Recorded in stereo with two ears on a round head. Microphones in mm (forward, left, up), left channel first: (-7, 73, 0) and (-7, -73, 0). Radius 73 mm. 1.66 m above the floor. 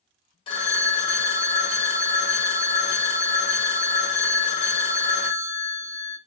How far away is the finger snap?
No finger snap in this recording.